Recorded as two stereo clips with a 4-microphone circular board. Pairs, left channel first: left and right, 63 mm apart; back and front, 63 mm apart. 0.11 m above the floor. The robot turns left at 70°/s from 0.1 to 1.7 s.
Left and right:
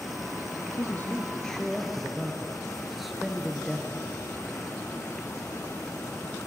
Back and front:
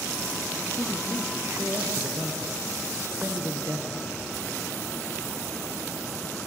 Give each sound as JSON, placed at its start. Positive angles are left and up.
{"t": 0.8, "sound": "a man speaking", "azimuth_deg": 60, "distance_m": 1.8}